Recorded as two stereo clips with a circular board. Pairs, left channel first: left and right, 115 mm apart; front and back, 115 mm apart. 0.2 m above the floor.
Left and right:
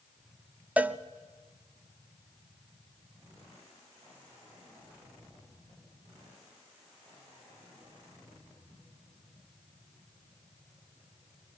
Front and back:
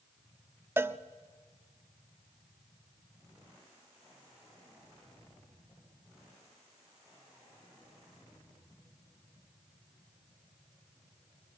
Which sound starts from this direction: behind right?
A cowbell, at 0.8 s.